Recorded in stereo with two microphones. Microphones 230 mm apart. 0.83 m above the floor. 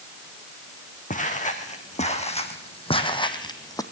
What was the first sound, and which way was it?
Footsteps, 35° left (ahead or behind).